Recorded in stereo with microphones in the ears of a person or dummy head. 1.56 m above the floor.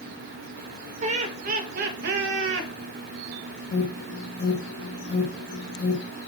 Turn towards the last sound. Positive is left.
turn(degrees=45)  # may be behind; listen again after turning